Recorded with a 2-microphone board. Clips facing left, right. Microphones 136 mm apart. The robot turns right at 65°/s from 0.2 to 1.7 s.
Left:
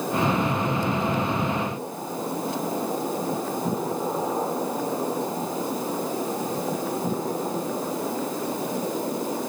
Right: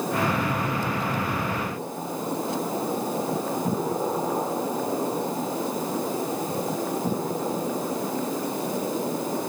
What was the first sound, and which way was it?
Only background noise.